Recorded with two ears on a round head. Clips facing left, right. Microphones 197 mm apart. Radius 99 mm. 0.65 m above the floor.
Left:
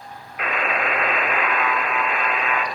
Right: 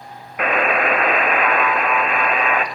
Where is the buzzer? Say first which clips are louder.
Right 6 dB; 50° right (ahead or behind), 0.6 m.